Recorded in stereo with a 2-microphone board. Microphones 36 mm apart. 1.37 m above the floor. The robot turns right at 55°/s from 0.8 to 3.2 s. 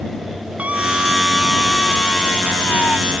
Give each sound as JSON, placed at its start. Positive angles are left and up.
{"t": 0.6, "sound": "a scream", "azimuth_deg": -35}